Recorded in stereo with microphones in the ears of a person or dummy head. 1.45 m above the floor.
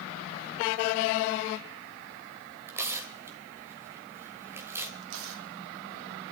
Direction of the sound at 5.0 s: 75° right (ahead or behind).